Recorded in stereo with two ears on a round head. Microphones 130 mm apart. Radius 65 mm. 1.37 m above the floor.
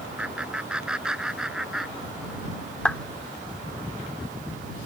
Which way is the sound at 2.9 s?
5° left (ahead or behind).